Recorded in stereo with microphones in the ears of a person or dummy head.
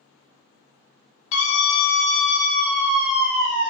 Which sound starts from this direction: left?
A scream, at 1.3 s.